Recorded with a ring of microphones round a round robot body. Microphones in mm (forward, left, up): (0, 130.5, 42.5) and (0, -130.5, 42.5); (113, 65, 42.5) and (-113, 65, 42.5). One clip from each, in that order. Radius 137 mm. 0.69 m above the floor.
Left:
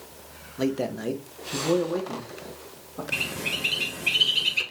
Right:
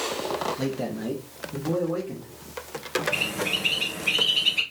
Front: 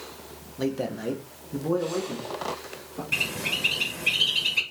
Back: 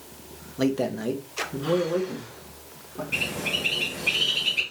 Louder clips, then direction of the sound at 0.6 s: Left 2 dB, back 3 dB; 150° left.